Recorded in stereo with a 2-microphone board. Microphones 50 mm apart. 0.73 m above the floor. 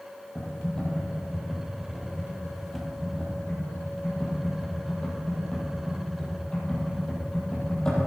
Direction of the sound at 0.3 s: 15° left (ahead or behind).